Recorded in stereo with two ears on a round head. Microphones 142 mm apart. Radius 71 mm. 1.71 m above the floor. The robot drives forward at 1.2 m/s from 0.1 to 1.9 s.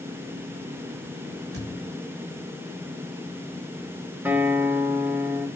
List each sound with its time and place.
1.5 s a thud: 75° right (ahead or behind), 6.5 m; by 2.0 s 70° right (ahead or behind), 6.5 m
4.2 s a guitar: 10° right (ahead or behind), 2.5 m